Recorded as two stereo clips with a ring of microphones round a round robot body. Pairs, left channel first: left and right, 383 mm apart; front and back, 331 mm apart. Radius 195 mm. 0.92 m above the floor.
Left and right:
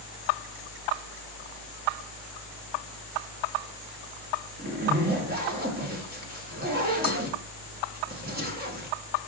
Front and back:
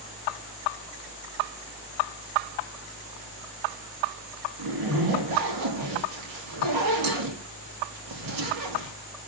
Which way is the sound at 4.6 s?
155° right.